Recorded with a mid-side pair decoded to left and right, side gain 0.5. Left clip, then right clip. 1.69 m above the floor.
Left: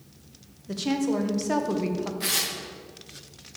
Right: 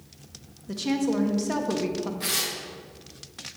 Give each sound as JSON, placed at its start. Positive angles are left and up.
{"t": 0.7, "sound": "a woman speaking", "azimuth_deg": 5, "distance_m": 1.4}
{"t": 2.2, "sound": "tearing paper", "azimuth_deg": 15, "distance_m": 1.6}